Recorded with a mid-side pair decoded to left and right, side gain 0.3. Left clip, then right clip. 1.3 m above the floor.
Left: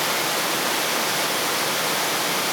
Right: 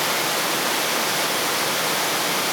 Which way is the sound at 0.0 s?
10° right.